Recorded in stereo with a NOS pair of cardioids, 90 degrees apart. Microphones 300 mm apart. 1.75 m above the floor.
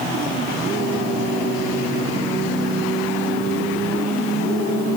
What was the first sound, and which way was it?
Only background noise.